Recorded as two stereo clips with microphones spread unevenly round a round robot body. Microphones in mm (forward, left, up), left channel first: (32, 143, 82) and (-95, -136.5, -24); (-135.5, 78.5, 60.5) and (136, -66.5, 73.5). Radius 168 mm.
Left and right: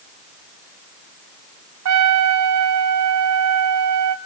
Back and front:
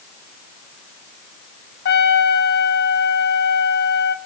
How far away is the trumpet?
About 1.2 m.